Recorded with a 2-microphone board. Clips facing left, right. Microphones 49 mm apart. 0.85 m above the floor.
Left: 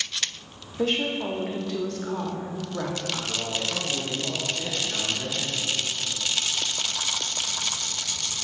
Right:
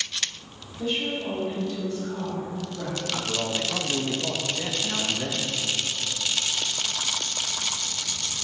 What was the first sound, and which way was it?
A woman speaking, 70° left (ahead or behind).